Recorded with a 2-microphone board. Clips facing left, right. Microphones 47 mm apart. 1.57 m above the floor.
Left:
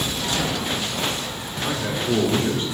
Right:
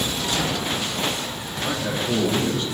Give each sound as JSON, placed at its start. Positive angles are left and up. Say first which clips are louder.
{"t": 1.6, "sound": "a man speaking", "louder": "even", "side_deg": 45, "distance_m": 6.0}